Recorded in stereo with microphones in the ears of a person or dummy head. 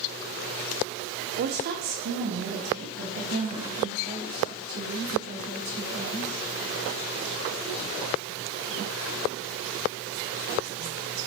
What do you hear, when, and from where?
1.4 s a woman speaking: 45° right (ahead or behind), 0.5 m; by 6.5 s 55° right (ahead or behind), 3.5 m